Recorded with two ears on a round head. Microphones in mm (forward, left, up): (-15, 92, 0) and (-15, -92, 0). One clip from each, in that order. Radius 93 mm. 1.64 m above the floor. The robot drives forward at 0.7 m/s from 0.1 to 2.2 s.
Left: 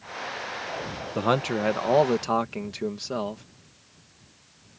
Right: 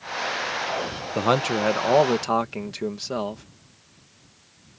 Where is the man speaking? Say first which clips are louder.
Right 3 dB; 10° right (ahead or behind).